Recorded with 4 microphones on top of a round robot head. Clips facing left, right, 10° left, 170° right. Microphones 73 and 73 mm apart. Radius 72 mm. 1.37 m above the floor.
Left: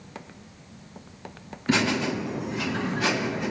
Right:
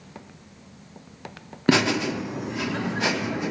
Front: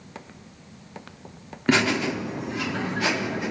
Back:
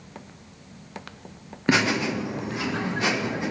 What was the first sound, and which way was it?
Laughter, 85° right.